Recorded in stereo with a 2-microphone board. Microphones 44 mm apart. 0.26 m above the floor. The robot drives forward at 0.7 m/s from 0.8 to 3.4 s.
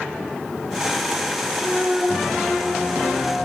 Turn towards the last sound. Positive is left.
turn(degrees=0)  # may be behind; listen again after turning